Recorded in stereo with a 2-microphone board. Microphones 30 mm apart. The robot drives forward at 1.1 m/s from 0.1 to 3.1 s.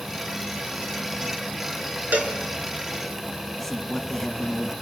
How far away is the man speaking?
About 2 m.